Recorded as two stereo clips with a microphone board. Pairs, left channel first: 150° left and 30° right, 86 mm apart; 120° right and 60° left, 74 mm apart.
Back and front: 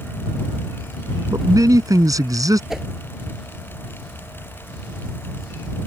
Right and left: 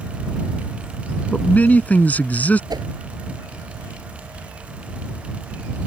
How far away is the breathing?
I don't hear breathing.